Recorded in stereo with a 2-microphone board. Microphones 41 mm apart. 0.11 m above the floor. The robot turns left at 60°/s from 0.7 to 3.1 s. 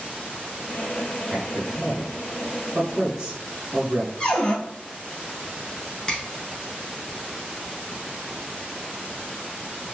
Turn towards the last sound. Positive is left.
turn(degrees=20)  # may be behind; listen again after turning